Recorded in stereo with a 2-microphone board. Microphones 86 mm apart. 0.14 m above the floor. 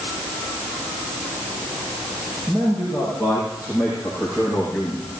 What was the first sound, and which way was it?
A man speaking, 35° right (ahead or behind).